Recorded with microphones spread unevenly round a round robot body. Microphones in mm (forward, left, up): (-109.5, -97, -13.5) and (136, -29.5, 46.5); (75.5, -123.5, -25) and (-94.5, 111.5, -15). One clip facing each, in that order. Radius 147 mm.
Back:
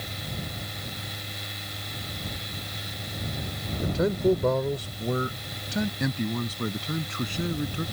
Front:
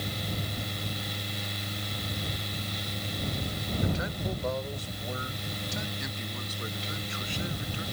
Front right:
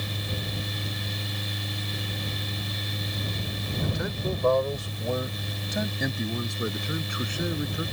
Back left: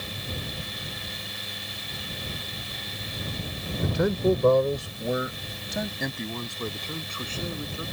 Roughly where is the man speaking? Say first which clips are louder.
Back 13 dB, back left 10 dB; behind left.